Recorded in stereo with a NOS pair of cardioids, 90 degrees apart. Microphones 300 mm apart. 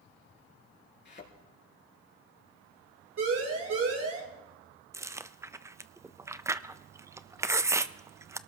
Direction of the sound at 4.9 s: 10° right.